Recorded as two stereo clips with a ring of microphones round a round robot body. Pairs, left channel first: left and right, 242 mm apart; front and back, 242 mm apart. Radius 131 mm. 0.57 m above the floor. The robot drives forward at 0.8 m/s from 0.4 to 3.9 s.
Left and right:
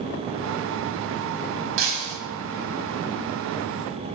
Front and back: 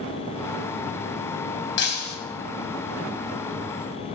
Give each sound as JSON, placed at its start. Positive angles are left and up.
{"t": 1.8, "sound": "breaking glass", "azimuth_deg": -45, "distance_m": 1.8}